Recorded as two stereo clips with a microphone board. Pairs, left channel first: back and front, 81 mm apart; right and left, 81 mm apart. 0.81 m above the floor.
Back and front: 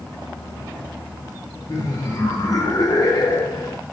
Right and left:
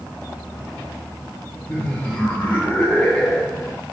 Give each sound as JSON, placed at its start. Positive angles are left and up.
{"t": 1.7, "sound": "laughter", "azimuth_deg": -160, "distance_m": 0.7}